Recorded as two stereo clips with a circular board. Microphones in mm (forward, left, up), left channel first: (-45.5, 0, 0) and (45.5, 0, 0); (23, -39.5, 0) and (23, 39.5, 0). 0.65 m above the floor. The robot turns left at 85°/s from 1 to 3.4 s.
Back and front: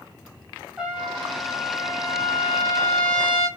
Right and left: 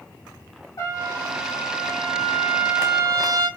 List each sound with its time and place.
0.8 s a trumpet: 75° right, 1.4 m; by 3.5 s 80° left, 1.4 m